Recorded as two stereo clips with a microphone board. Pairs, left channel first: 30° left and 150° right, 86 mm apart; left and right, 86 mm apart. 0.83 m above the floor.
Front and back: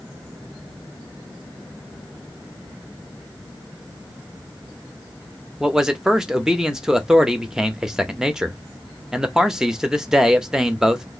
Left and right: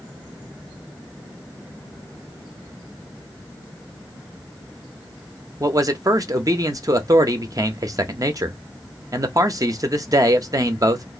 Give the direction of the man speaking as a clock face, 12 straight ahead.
2 o'clock.